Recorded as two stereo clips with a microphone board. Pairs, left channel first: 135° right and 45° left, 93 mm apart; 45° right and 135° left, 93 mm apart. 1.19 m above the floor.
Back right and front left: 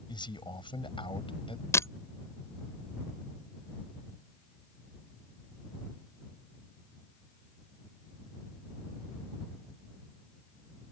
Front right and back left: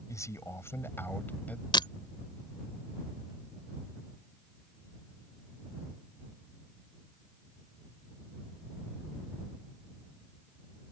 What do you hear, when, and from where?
0.1 s a man speaking: 100° right; by 1.6 s 120° right
1.7 s breaking glass: 75° right